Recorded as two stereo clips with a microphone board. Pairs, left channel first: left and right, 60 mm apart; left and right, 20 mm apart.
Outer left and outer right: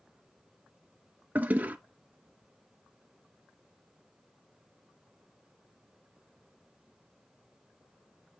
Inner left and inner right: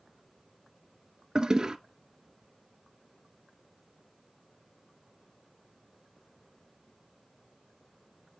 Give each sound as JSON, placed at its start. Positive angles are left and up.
{"t": 1.4, "sound": "a toilet flushing", "side_deg": -25, "distance_m": 0.8}